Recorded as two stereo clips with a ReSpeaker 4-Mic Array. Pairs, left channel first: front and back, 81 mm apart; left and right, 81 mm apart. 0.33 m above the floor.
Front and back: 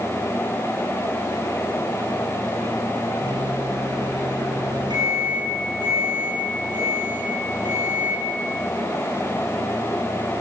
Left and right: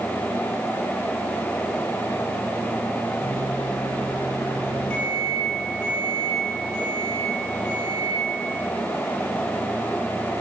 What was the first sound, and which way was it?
A microwave, 165° left.